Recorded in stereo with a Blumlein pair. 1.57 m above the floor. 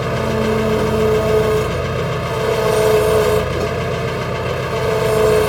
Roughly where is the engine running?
Ahead.